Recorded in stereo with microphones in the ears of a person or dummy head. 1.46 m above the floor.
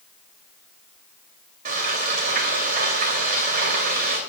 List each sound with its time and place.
1.6 s frying: 50° right (ahead or behind), 3 m